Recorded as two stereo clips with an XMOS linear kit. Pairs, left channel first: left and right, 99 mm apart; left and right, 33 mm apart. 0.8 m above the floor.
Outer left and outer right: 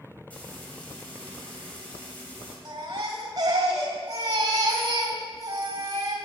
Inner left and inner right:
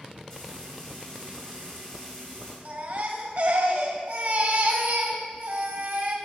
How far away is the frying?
About 2 m.